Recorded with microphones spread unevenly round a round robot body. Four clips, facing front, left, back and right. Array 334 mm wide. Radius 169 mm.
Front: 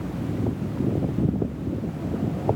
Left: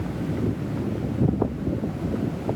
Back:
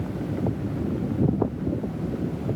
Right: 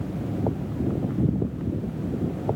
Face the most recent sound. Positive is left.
No sound to turn to.